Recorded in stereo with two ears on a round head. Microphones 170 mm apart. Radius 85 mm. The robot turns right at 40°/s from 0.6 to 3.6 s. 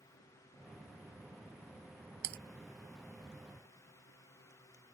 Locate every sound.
2.2 s typing on a keyboard: 55° right (ahead or behind); by 2.4 s 50° right (ahead or behind)